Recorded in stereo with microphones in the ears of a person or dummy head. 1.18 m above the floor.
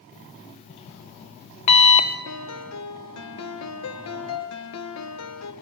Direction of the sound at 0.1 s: 35° left (ahead or behind).